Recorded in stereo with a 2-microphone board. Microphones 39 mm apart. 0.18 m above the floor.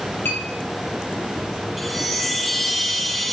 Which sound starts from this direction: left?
A clink, at 0.2 s.